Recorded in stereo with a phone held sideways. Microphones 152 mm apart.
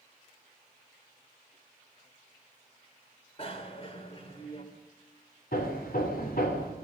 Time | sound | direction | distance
3.4 | a bicycle bell | 40° left (ahead or behind) | 2.5 m
5.5 | hammering | 80° left | 3 m